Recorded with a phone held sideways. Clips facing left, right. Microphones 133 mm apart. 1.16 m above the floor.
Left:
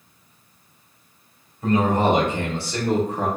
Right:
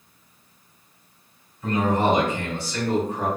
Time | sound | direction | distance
1.6 | a man speaking | 50° left (ahead or behind) | 1.8 m